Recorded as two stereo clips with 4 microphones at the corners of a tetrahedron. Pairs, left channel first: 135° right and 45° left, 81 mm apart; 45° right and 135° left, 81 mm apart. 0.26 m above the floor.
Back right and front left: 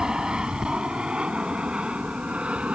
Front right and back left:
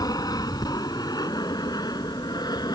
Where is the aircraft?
35° right; by 2.8 s 30° right.